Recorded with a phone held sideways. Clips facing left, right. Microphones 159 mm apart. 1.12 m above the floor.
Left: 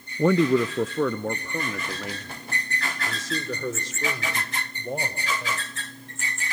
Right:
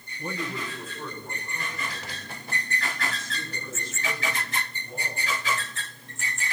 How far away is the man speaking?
About 0.7 m.